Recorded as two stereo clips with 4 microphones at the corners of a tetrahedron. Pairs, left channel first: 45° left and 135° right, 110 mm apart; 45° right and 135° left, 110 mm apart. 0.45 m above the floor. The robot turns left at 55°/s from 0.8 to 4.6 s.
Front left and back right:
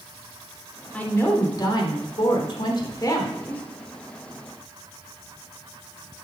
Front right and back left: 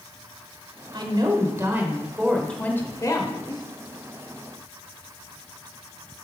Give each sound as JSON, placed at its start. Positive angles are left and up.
{"t": 0.9, "sound": "a woman speaking", "azimuth_deg": 120, "distance_m": 1.2}